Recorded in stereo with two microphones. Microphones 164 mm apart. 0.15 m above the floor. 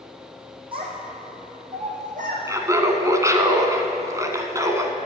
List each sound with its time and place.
0.7 s a child speaking: 30° right (ahead or behind), 3.5 m; by 2.4 s 55° right (ahead or behind), 4.5 m
2.5 s laughter: 20° right (ahead or behind), 1.2 m